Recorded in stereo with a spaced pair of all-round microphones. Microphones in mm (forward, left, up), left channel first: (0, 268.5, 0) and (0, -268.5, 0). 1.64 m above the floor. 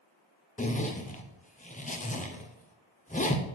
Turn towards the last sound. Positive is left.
turn(degrees=15)  # may be behind; listen again after turning